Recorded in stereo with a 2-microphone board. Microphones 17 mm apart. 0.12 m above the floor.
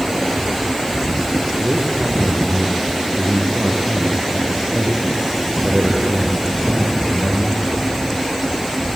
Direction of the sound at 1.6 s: 40° right (ahead or behind).